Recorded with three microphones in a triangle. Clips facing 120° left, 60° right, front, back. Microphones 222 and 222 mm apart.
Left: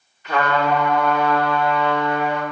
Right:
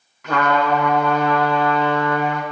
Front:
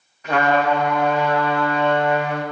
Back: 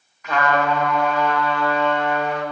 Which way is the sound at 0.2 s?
60° right.